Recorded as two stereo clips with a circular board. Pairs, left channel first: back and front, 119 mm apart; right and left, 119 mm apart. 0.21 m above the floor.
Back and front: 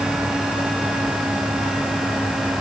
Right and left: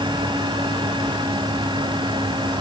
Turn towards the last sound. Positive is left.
No sound to turn to.